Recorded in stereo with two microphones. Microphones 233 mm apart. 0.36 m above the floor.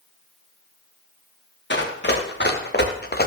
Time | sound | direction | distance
1.7 | running footsteps | 50° left (ahead or behind) | 3.5 m